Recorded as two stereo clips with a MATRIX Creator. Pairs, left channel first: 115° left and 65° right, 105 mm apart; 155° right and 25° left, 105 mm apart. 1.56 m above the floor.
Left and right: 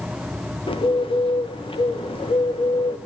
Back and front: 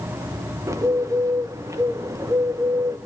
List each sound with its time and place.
0.7 s a bird: 80° left, 1.2 m